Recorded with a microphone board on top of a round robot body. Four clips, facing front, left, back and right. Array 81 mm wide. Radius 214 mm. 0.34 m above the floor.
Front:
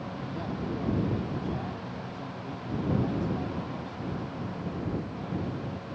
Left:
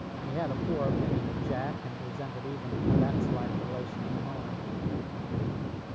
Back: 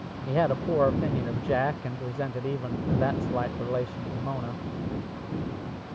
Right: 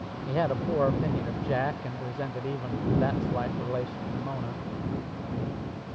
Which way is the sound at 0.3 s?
155° right.